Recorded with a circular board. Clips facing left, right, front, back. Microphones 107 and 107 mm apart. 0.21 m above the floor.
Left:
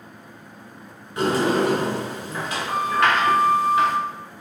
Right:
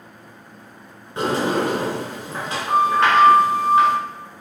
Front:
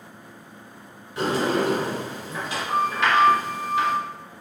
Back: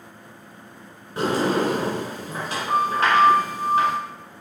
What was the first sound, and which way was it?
A sliding door, 145° right.